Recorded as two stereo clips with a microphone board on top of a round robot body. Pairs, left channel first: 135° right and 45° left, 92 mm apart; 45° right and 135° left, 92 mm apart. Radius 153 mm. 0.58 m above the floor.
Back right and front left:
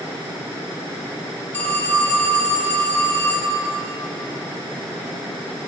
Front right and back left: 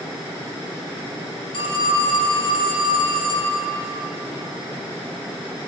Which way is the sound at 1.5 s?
70° right.